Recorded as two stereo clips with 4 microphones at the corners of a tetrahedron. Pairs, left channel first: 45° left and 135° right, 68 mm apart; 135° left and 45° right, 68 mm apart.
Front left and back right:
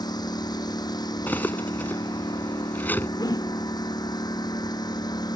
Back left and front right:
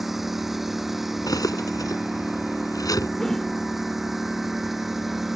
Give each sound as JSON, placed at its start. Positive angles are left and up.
{"t": 0.0, "sound": "a lawn mower", "azimuth_deg": 40}
{"t": 1.3, "sound": "cutlery clinking", "azimuth_deg": 110}
{"t": 3.2, "sound": "a whoosh", "azimuth_deg": 50}